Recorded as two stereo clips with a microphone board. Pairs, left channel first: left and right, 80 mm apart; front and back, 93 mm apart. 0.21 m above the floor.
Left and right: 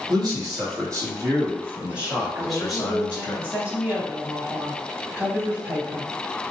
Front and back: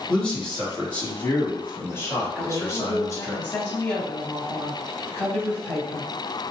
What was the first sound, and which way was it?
A man speaking, 80° right.